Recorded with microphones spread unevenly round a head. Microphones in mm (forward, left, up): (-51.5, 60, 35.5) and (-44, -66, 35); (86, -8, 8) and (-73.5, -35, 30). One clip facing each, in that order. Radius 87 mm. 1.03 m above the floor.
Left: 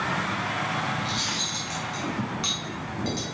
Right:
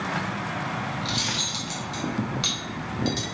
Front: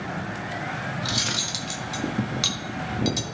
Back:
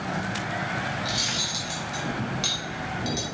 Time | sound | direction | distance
1.0 | cutlery clinking | 15° right | 0.9 m